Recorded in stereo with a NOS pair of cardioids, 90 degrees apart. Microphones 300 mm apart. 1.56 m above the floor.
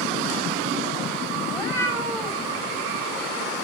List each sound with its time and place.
1.5 s a cat meowing: 10° left, 2.5 m